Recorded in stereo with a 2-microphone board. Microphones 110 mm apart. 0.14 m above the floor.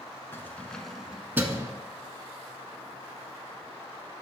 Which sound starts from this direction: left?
Keys jangling, at 0.3 s.